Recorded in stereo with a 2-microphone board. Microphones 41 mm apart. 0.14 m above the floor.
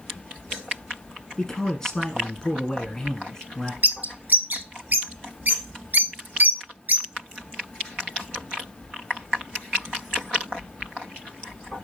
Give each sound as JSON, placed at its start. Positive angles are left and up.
{"t": 1.4, "sound": "a man speaking", "side_deg": 15, "distance_m": 1.1}
{"t": 3.8, "sound": "a bird", "side_deg": -45, "distance_m": 0.8}